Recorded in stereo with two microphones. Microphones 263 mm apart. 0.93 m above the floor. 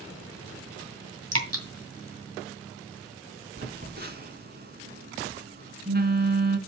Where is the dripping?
65° right (ahead or behind), 2 m.